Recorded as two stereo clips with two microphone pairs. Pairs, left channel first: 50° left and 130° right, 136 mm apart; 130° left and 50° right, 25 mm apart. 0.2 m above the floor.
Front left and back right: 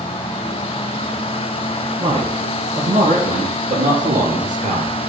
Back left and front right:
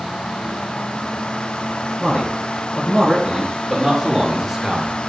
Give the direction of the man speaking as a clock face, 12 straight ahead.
6 o'clock.